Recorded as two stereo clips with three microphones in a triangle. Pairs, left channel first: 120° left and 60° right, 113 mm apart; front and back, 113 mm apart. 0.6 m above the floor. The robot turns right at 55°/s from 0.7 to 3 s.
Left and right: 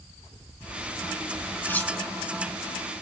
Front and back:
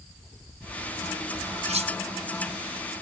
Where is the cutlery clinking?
170° right, 2.5 m; by 1.9 s 155° right, 2.5 m.